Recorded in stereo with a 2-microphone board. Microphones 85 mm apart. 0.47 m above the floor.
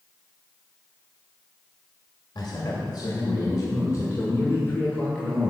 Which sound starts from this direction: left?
A man speaking, at 2.4 s.